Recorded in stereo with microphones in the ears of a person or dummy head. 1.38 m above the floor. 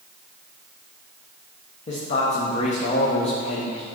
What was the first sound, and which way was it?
A man speaking, 30° left (ahead or behind).